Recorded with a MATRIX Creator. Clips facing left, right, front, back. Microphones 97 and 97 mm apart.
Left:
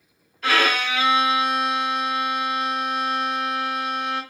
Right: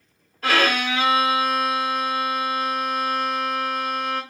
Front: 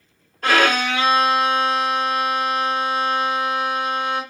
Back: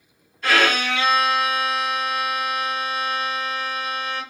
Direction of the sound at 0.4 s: 40° right.